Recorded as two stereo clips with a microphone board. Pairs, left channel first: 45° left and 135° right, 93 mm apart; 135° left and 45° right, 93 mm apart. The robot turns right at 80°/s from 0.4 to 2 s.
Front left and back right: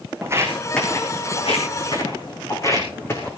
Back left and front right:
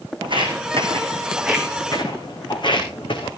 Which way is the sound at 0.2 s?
75° right.